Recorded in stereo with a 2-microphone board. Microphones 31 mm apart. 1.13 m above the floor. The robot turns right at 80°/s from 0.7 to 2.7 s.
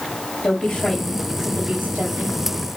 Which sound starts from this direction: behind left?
A woman speaking, at 0.4 s.